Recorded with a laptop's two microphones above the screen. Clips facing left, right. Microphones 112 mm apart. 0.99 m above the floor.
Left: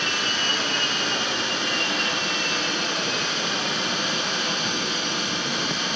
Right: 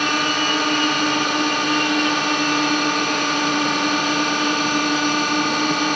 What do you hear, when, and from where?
0.0 s a drone: 70° right (ahead or behind)